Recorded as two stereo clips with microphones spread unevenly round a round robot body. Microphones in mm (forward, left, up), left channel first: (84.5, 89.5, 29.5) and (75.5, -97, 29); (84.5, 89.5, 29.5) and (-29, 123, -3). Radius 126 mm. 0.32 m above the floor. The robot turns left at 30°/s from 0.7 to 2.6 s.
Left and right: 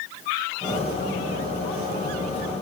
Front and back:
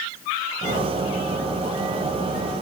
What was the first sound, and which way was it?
Only background noise.